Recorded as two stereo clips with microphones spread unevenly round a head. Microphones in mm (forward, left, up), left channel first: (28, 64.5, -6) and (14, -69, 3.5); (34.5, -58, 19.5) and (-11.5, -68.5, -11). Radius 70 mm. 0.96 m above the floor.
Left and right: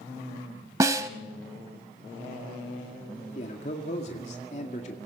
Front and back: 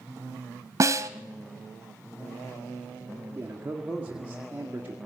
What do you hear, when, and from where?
0.8 s a snare drum: 135° right, 0.9 m
3.4 s a man speaking: 130° left, 1.9 m